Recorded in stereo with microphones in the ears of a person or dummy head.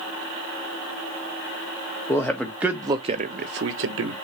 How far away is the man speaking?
About 1.2 m.